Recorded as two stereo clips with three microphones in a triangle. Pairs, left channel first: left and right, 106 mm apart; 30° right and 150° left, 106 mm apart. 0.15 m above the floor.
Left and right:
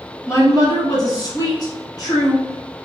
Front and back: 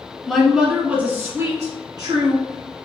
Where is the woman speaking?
55° left, 1.2 m; by 2.8 s 135° left, 1.7 m.